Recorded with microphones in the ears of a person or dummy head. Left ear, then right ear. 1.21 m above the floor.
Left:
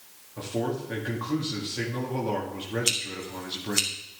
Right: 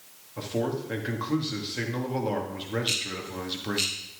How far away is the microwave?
I don't hear a microwave.